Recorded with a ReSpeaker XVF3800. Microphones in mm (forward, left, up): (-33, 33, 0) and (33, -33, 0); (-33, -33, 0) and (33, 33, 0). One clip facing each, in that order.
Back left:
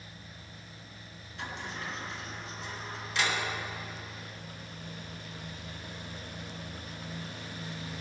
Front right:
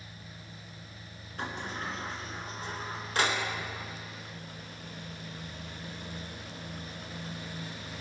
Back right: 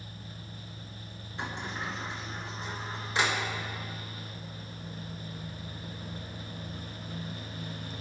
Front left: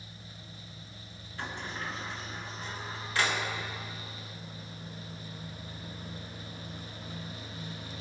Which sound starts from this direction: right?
A sliding door, at 1.4 s.